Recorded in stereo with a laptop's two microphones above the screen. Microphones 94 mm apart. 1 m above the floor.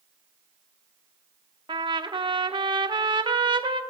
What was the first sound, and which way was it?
A trumpet, 65° right (ahead or behind).